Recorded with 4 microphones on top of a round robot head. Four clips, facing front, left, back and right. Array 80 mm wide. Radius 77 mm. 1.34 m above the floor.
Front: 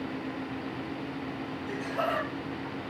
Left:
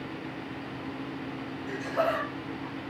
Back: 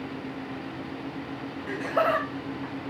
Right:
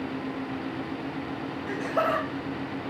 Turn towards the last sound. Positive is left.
turn(degrees=-165)